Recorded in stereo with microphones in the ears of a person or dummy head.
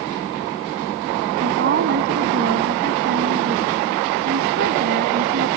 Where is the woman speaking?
50° right (ahead or behind).